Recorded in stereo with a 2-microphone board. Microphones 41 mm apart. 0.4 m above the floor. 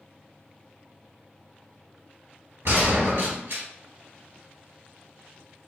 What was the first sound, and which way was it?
A gunshot, 85° right.